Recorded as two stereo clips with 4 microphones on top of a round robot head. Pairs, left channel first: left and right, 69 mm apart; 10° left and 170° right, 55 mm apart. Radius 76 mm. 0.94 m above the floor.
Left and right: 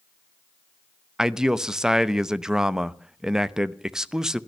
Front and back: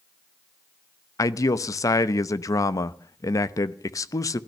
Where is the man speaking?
10° right, 0.9 m.